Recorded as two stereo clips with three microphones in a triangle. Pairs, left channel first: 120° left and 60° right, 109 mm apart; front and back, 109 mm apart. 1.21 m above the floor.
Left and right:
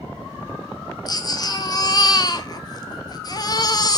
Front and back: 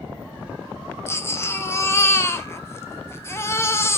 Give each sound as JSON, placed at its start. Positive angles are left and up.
{"t": 1.1, "sound": "a baby crying", "azimuth_deg": 65, "distance_m": 0.8}